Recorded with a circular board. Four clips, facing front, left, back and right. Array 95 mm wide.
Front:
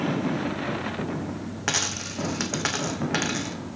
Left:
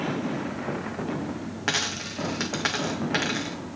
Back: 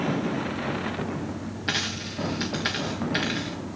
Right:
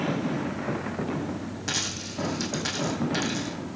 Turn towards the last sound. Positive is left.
turn(degrees=45)